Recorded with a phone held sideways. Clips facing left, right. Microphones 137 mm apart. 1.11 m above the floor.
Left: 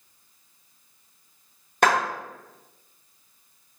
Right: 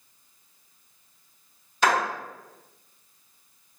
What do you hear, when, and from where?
1.8 s a clap: 55° left (ahead or behind), 1.2 m